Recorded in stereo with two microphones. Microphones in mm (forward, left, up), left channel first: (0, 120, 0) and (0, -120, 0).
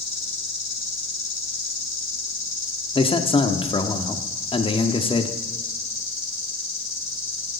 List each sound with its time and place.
0.0 s an insect: 60° left (ahead or behind), 3 m
3.0 s a man speaking: 20° left (ahead or behind), 0.9 m